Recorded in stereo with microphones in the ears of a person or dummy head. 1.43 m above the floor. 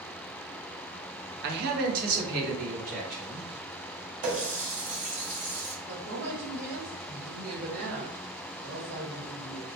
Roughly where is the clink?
I don't hear a clink.